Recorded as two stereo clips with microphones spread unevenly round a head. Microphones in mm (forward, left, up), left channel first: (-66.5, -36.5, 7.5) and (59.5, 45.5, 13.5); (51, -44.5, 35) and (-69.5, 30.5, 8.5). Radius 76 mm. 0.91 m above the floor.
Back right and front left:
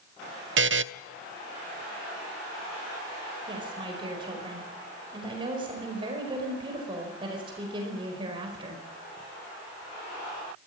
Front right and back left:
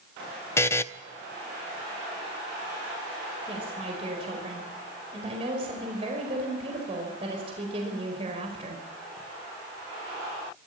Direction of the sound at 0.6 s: 40° left.